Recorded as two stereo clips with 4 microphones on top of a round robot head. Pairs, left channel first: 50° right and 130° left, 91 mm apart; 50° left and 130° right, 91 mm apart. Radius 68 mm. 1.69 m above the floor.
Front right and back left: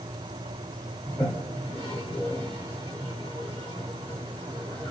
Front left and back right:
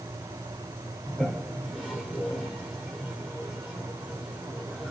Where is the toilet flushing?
40° right, 1.3 m.